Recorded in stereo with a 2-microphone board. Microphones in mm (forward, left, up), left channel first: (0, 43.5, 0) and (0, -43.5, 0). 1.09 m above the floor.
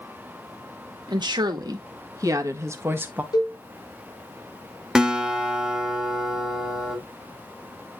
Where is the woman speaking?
55° right (ahead or behind), 1.8 m; by 3.2 s 20° right (ahead or behind), 1.3 m.